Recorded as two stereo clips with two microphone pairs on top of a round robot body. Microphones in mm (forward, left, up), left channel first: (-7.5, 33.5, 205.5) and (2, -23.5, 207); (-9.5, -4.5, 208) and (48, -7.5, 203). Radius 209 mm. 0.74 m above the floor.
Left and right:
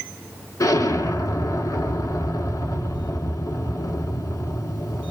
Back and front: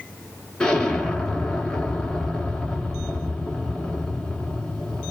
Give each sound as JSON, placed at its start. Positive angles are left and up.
{"t": 0.6, "sound": "an explosion", "azimuth_deg": 100, "distance_m": 2.5}